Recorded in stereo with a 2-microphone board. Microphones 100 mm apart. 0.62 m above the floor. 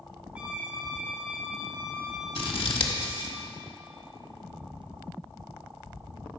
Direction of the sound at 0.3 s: 15° right (ahead or behind).